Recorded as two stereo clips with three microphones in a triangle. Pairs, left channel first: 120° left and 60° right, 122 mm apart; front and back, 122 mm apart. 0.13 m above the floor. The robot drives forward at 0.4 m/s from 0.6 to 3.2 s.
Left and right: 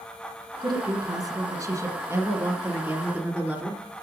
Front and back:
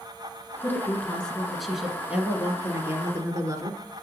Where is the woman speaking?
60° right, 1.3 m; by 3.9 s 135° right, 1.4 m.